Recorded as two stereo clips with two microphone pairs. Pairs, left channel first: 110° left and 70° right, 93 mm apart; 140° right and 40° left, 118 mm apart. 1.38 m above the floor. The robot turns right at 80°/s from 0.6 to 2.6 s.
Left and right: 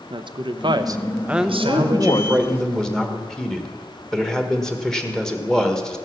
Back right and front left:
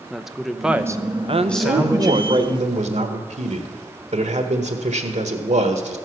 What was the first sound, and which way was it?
A woman speaking, 50° right.